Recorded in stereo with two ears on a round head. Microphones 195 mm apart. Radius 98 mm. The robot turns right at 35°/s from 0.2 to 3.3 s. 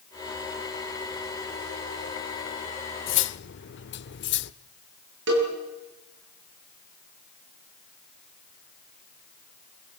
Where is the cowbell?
55° right (ahead or behind), 7 m.